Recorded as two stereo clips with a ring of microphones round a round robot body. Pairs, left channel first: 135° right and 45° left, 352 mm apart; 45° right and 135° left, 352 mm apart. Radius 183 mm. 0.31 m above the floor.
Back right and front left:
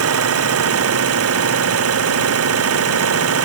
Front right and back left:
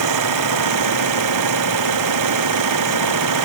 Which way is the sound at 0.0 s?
95° left.